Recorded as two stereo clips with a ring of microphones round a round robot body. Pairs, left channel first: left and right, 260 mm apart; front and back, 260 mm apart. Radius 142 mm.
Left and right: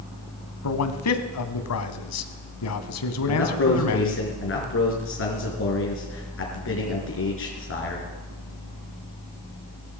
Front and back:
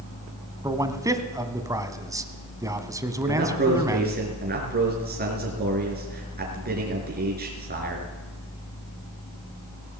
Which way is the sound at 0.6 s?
105° left.